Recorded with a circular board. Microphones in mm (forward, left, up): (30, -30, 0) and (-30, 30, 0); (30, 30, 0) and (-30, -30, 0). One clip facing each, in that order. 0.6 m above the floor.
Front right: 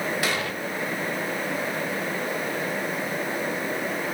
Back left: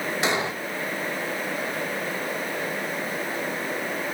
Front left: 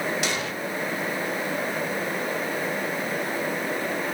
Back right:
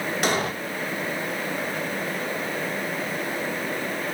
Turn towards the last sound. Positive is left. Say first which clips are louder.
# back left 2 dB, back right 4 dB
turn(degrees=-165)